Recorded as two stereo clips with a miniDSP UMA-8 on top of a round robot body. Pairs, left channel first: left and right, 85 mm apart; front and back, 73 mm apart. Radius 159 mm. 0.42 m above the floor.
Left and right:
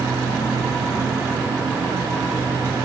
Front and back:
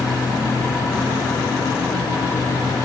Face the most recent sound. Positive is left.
No sound to turn to.